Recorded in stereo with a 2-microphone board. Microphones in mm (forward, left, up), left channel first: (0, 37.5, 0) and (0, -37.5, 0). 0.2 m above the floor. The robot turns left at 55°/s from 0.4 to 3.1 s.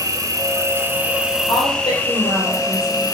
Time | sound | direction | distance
0.0 | an insect | 115° right | 1.5 m
1.5 | a woman speaking | 120° left | 4.5 m